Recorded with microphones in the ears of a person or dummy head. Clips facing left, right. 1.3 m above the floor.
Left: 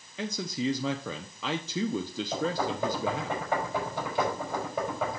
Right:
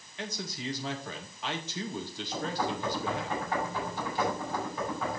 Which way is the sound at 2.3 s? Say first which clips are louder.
Left 2 dB; 65° left (ahead or behind).